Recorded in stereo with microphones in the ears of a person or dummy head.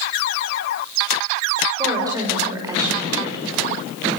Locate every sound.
1.8 s a woman speaking: 20° right (ahead or behind), 5.5 m